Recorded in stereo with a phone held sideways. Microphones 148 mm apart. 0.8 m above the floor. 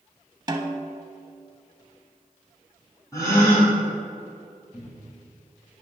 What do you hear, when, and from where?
0.5 s a snare drum: 25° right (ahead or behind), 0.7 m
3.1 s a gasp: 20° left (ahead or behind), 2.5 m
4.7 s a cupboard door: 5° right (ahead or behind), 2.5 m